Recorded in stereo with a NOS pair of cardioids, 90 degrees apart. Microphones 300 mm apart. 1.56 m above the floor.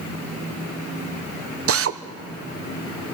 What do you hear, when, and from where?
1.7 s a drill: 50° right, 1.1 m